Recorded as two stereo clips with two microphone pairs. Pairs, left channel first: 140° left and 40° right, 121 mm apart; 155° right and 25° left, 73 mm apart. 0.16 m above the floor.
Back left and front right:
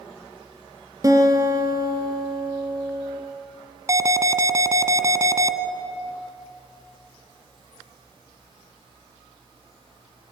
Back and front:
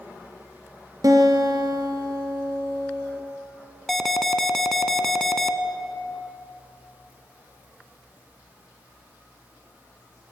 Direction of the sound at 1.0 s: 15° left.